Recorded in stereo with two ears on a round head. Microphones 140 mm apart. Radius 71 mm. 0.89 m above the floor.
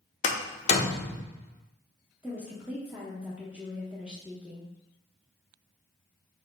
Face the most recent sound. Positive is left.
turn(degrees=-10)  # may be behind; listen again after turning